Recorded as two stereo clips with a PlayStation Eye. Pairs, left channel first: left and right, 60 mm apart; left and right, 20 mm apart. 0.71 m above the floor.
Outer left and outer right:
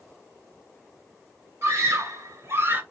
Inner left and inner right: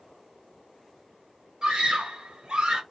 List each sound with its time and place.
1.6 s a scream: 50° right (ahead or behind), 1.2 m; by 2.8 s 30° right (ahead or behind), 0.9 m